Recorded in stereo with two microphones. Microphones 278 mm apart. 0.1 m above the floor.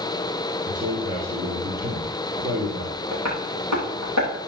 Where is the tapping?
80° right, 7 m.